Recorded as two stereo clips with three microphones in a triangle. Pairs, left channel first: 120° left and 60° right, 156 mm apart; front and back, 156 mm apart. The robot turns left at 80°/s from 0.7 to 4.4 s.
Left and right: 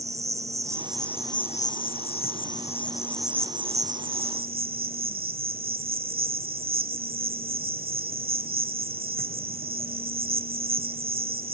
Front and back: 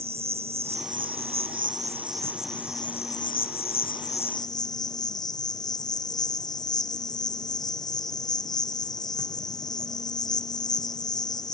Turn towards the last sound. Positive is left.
turn(degrees=-65)